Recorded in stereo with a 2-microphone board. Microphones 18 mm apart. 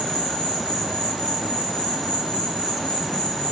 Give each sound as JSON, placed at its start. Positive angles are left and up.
{"t": 0.0, "sound": "an insect", "side_deg": 80, "distance_m": 9.5}